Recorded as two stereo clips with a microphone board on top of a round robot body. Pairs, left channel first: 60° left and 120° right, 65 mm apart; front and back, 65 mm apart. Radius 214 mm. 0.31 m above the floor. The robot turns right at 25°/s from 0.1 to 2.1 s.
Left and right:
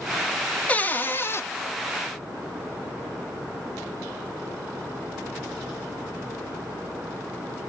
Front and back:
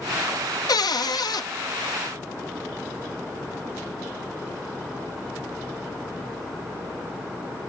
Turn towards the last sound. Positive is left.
turn(degrees=25)